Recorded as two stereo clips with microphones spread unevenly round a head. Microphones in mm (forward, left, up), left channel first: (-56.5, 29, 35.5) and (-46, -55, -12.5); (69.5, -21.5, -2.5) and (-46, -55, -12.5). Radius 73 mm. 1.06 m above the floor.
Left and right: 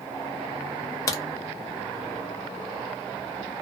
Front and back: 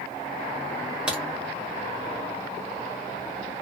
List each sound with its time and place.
1.1 s a crack: 110° left, 0.6 m